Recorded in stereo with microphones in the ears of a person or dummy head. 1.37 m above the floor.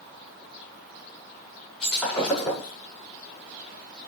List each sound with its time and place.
1.8 s breaking glass: 5° left (ahead or behind), 6.5 m